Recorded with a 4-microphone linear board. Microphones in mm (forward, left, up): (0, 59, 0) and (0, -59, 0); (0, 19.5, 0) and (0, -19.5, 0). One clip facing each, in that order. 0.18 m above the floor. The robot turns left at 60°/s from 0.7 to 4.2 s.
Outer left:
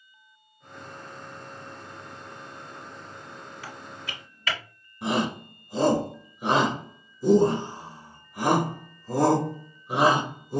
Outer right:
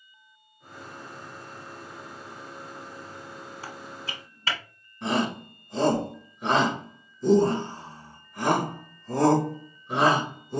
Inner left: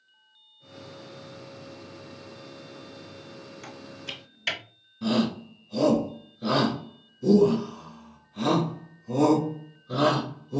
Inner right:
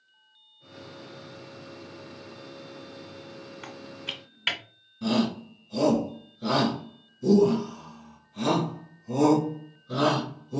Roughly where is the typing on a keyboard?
Right.